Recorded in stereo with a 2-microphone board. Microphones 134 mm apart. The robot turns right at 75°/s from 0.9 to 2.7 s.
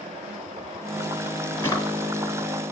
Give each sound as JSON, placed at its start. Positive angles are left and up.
{"t": 1.6, "sound": "a drawer", "side_deg": 15, "distance_m": 1.3}